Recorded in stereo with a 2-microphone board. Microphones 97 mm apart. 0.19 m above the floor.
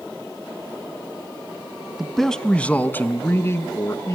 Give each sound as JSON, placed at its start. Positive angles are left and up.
{"t": 2.0, "sound": "a man speaking", "side_deg": -5, "distance_m": 1.3}